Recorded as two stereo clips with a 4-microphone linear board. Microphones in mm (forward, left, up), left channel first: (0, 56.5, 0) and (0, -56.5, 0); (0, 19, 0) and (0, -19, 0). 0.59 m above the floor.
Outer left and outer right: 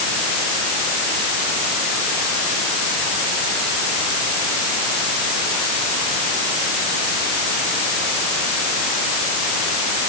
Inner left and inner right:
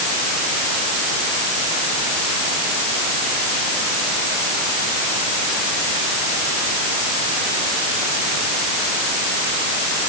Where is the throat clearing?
No throat clearing in this recording.